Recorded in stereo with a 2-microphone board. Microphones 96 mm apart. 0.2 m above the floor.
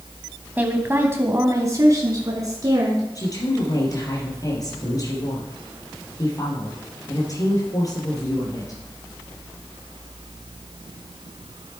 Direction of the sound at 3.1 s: 40° left (ahead or behind).